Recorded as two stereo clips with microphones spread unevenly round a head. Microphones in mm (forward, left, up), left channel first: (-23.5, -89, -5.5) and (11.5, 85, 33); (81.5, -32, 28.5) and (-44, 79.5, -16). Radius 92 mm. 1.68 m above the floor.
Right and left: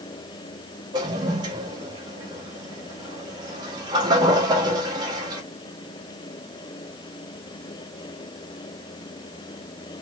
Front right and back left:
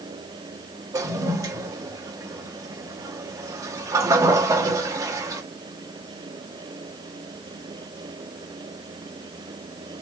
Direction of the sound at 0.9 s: 60° left.